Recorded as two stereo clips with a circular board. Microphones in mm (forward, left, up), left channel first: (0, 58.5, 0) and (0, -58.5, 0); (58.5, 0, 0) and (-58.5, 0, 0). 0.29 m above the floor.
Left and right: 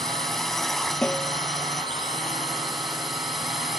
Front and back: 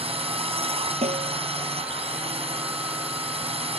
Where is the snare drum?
170° left.